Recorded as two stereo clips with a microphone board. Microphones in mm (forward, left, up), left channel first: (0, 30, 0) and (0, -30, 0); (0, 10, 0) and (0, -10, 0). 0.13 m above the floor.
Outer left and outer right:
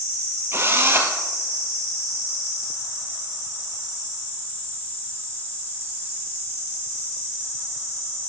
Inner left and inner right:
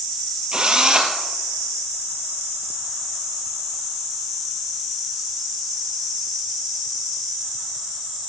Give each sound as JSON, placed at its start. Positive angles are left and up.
{"t": 0.5, "sound": "a drill", "side_deg": -40, "distance_m": 2.5}